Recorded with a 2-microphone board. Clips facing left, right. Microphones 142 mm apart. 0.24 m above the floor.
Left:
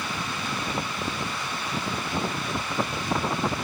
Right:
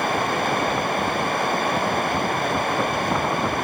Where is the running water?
60° right (ahead or behind).